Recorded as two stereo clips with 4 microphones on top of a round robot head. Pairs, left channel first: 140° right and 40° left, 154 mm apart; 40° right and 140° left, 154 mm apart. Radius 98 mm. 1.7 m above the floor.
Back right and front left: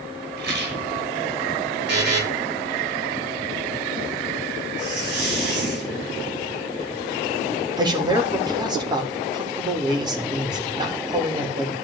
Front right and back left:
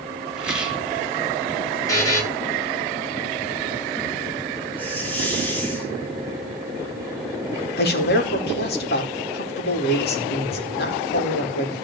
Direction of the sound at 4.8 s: 35° left.